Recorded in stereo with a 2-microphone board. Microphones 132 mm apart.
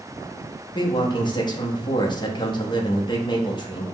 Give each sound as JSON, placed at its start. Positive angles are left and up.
{"t": 0.8, "sound": "a man speaking", "side_deg": 35, "distance_m": 0.7}